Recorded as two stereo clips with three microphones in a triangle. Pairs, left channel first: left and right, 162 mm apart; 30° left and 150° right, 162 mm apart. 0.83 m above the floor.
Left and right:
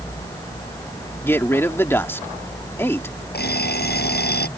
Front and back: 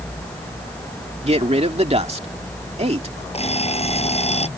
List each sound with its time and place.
1.2 s a man speaking: 165° left
3.3 s an alarm clock: 80° left